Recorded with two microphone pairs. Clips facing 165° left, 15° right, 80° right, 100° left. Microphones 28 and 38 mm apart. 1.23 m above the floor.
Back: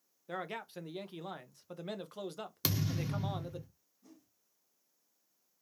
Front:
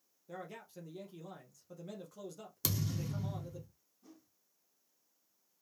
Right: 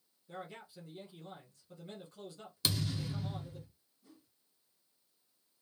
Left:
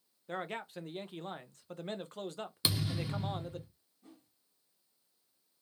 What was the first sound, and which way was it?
A man speaking, 130° left.